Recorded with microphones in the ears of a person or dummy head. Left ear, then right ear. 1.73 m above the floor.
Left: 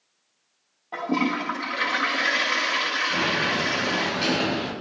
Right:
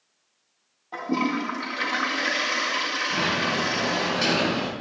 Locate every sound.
0.9 s a toilet flushing: 15° left (ahead or behind), 1.9 m
3.1 s a sliding door: 20° right (ahead or behind), 7 m